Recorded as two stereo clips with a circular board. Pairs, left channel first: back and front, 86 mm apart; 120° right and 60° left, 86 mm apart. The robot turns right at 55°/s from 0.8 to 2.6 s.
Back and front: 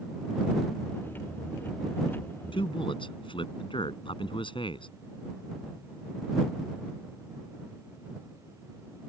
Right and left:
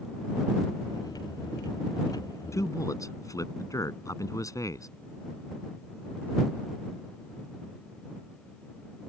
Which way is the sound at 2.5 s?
175° right.